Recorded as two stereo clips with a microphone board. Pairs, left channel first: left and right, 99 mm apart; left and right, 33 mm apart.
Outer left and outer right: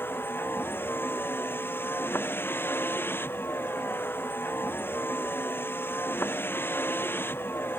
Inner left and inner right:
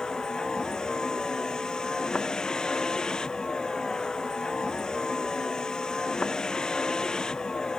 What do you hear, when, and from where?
0.0 s a vehicle: 20° left (ahead or behind)